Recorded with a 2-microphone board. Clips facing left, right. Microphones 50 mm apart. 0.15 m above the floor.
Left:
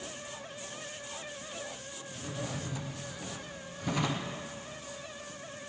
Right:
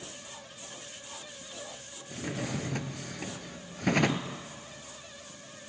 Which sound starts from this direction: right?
A drawer, at 2.1 s.